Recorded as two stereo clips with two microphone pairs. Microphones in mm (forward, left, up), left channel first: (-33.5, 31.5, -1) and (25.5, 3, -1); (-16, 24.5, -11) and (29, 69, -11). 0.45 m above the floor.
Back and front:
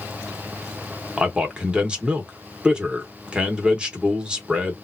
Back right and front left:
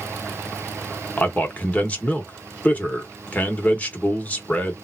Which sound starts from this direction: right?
A man speaking, at 1.2 s.